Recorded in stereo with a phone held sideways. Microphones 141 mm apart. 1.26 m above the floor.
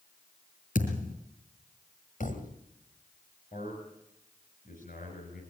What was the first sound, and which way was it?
A thud, 70° left (ahead or behind).